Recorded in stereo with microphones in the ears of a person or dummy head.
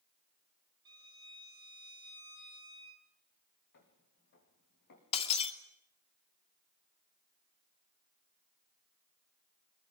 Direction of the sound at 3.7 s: 60° left (ahead or behind).